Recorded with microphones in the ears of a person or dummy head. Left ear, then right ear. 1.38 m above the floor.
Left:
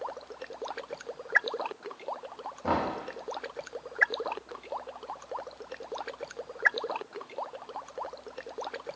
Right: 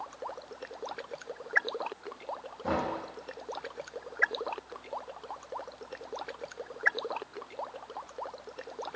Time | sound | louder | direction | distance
2.6 | knocking | left 2 dB | 10° left (ahead or behind) | 0.5 m